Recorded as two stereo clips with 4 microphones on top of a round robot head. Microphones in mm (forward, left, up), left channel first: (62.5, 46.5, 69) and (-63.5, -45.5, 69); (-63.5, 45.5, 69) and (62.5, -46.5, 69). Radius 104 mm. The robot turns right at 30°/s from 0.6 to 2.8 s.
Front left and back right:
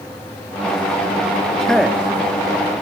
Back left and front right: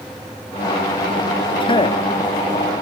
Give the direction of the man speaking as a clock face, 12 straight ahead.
8 o'clock.